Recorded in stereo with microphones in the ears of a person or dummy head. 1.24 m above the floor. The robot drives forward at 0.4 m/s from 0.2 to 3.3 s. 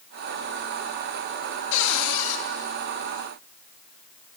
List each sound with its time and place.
1.7 s a cupboard door: 70° left (ahead or behind), 1.5 m; by 2.4 s 80° left, 1.4 m